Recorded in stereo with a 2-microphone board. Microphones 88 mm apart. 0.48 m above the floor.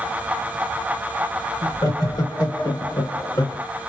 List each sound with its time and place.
1.6 s laughter: 45° left (ahead or behind), 3.5 m